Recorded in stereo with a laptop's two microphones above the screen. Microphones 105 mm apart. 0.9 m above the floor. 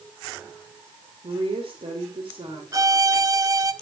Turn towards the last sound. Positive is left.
turn(degrees=-35)  # may be behind; listen again after turning